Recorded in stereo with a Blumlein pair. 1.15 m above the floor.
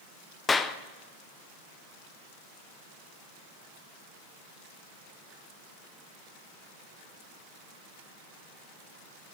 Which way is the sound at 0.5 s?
15° left.